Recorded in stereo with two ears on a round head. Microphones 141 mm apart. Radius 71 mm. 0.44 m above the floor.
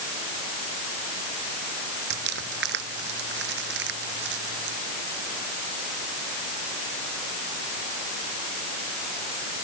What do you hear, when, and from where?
2.1 s crumpling: 75° right (ahead or behind)